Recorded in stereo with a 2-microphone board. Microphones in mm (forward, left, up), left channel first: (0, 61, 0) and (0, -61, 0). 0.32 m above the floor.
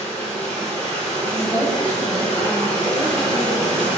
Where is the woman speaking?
15° left (ahead or behind), 1.3 m.